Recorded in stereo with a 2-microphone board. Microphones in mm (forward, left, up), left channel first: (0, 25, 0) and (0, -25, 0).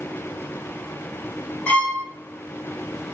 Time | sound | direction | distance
1.7 | a violin | 25° left (ahead or behind) | 2 m